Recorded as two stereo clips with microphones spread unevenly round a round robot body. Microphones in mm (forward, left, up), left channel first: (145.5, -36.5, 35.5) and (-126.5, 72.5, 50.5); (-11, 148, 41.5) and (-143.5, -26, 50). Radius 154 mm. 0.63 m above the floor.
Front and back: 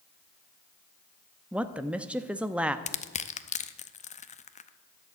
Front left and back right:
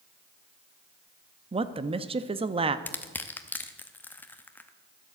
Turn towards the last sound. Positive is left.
turn(degrees=-15)